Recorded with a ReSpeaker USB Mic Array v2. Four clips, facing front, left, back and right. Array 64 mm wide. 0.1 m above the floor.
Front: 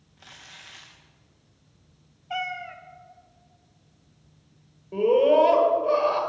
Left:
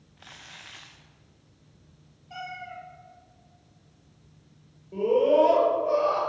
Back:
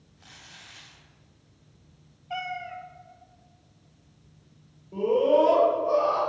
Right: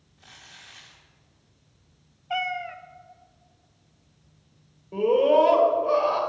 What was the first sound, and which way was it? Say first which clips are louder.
Crumpling: left 3 dB, front 3 dB; 65° left.